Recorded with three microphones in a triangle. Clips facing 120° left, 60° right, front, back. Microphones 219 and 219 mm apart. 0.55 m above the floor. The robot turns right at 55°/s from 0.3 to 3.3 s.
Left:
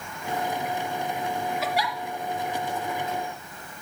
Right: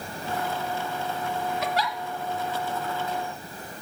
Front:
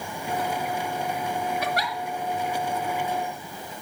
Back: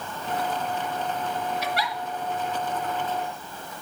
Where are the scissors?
No scissors in this recording.